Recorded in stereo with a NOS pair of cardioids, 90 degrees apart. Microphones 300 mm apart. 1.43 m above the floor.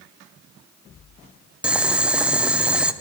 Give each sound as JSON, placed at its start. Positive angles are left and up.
{"t": 1.6, "sound": "boiling", "azimuth_deg": -5, "distance_m": 0.5}